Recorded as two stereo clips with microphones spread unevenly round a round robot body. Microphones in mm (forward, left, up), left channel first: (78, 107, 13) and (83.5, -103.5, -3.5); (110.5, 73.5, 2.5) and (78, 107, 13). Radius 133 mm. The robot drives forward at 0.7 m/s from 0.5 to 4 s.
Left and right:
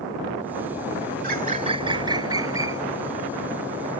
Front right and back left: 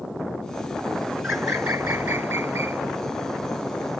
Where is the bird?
145° right; by 2.8 s 170° right.